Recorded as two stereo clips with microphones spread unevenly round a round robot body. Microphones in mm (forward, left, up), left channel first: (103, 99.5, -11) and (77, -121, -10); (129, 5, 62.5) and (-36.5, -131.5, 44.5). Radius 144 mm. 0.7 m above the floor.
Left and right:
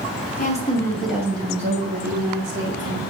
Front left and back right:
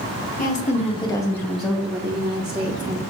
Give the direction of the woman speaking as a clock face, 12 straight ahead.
10 o'clock.